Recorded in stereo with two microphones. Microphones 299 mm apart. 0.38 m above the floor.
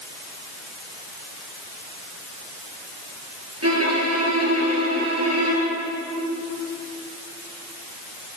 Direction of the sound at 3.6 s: 55° right (ahead or behind).